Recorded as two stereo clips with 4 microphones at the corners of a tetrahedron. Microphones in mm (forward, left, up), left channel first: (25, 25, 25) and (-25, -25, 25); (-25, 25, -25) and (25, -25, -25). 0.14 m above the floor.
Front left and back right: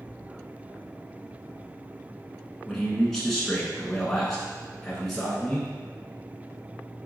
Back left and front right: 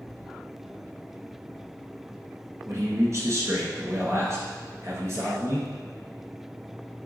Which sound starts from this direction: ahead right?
A man speaking, at 2.6 s.